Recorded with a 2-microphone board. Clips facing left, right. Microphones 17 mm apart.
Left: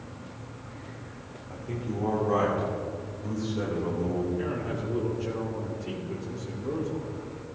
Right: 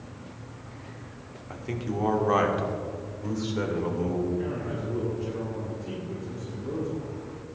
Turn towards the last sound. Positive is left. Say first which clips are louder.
# even
turn(degrees=40)  # may be behind; listen again after turning